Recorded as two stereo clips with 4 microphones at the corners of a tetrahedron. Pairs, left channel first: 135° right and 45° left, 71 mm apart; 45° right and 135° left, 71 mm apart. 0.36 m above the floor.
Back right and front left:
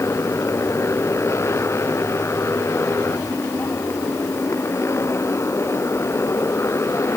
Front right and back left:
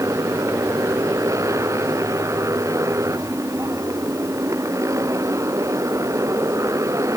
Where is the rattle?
I don't hear a rattle.